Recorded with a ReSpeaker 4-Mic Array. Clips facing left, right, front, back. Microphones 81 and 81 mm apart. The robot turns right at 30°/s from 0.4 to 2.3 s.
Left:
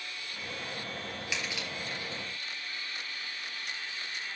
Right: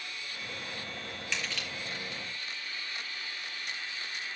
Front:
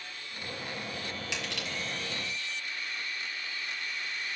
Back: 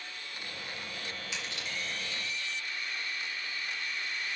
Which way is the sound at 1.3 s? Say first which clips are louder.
Right 1 dB, front 2 dB; 5° left.